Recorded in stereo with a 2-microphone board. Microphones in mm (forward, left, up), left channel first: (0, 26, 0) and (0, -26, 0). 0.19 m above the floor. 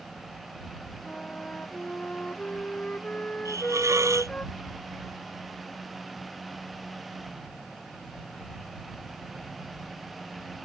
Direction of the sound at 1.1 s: 25° left (ahead or behind).